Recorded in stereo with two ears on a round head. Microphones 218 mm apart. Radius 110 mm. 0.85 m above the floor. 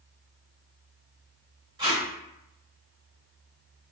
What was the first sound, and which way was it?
Tape being pulled, 20° right (ahead or behind).